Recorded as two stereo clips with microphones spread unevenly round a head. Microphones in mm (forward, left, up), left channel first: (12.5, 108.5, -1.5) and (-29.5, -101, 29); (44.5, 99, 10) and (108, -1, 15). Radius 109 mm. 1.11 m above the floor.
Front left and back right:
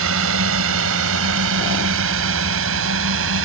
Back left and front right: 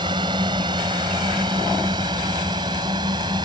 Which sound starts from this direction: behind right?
A drone, at 0.0 s.